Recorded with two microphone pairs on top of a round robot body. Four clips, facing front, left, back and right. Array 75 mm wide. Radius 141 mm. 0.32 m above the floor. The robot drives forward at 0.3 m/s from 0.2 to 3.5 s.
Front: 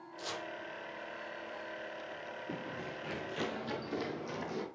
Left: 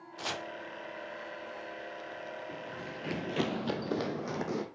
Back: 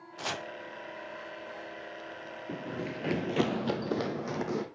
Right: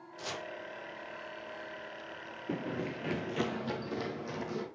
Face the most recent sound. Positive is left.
turn(degrees=140)